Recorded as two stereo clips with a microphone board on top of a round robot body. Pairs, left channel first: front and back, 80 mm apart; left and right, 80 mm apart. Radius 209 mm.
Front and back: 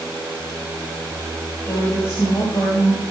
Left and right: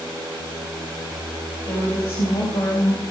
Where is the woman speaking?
60° left, 6 m; by 3.0 s 50° left, 5 m.